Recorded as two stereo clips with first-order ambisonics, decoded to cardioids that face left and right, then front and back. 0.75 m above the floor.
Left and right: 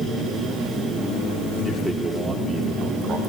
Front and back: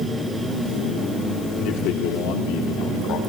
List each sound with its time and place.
1.6 s a man speaking: 15° left, 1.9 m; by 3.2 s 35° right, 2 m